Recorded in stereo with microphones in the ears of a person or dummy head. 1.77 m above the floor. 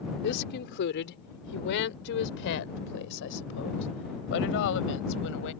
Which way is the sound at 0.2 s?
60° left (ahead or behind).